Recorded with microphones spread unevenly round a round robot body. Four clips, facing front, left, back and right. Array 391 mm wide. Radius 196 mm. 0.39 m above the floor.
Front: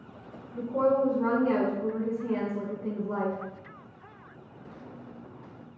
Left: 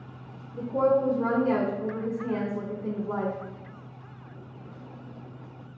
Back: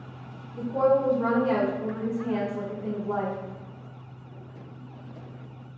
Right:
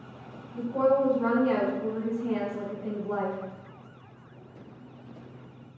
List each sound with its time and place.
0.5 s a woman speaking: 90° left, 1.1 m